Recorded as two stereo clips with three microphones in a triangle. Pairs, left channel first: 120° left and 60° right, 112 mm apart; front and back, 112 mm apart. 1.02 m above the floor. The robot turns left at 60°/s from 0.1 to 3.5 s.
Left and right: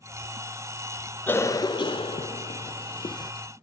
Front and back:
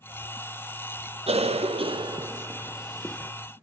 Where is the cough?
170° right, 0.6 m; by 3.3 s 70° left, 0.6 m.